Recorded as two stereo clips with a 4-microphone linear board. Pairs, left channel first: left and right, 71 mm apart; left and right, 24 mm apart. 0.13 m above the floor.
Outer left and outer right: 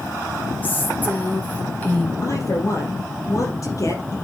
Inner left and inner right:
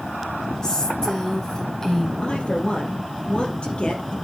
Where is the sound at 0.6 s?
30° left (ahead or behind), 6 m; by 2.1 s 25° left (ahead or behind), 5 m.